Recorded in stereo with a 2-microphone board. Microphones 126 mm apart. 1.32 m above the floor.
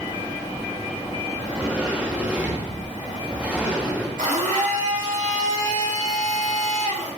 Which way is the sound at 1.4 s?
10° right (ahead or behind).